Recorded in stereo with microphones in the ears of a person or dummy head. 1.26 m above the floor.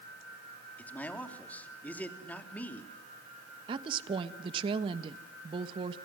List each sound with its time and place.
0.8 s a man speaking: 10° left (ahead or behind), 3 m
3.7 s a woman speaking: 30° right (ahead or behind), 1.2 m